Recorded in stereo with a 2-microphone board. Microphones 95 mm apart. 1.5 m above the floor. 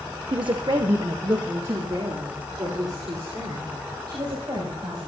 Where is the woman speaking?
55° right (ahead or behind), 0.6 m; by 5.1 s 50° right (ahead or behind), 7 m.